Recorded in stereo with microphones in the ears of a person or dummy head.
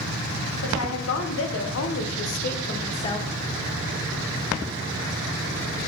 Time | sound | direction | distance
0.6 | a woman speaking | 85° left | 1.5 m